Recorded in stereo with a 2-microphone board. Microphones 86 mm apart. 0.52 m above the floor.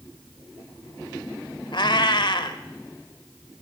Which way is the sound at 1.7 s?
65° left (ahead or behind).